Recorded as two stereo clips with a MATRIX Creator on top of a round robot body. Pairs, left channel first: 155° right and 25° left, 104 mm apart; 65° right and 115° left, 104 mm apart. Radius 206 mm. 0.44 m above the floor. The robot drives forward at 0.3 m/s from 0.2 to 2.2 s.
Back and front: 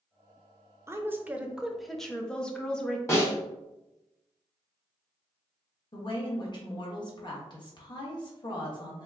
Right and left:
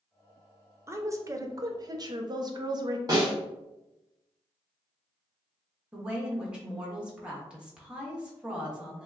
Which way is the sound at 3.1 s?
150° left.